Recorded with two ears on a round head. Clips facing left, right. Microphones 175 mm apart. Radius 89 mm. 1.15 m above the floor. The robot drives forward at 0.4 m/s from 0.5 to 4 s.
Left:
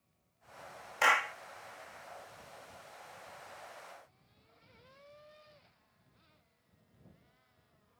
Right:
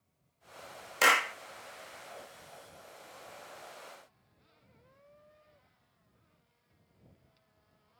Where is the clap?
45° right (ahead or behind).